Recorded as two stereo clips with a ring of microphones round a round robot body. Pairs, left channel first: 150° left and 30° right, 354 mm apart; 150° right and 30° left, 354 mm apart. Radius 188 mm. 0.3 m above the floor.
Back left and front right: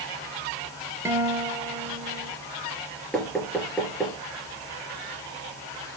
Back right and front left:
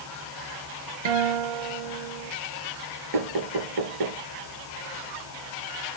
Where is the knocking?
60° left, 4 m.